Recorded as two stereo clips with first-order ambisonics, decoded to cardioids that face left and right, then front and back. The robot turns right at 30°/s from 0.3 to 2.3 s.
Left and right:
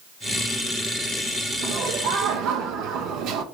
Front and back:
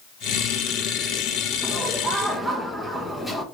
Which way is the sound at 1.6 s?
105° right.